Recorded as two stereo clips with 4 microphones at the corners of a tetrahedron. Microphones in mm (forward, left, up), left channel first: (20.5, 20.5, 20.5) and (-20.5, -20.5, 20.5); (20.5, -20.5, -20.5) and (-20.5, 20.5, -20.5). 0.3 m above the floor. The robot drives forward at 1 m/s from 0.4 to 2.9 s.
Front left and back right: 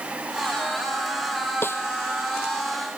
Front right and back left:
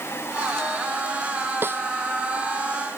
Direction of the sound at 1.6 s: 90° left.